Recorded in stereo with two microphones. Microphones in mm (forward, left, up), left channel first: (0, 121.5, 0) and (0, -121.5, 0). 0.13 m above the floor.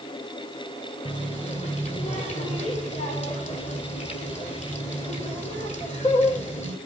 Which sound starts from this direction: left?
A running tap, at 1.1 s.